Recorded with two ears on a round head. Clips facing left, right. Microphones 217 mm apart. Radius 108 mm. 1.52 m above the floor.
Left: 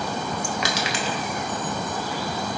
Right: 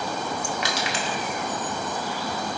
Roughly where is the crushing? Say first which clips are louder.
Left 2 dB; left.